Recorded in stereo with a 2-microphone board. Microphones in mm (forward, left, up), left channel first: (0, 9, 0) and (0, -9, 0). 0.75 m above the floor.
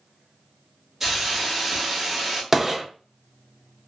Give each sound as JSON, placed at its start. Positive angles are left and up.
{"t": 1.0, "sound": "a hiss", "side_deg": -10, "distance_m": 1.2}
{"t": 2.5, "sound": "a gunshot", "side_deg": -15, "distance_m": 0.5}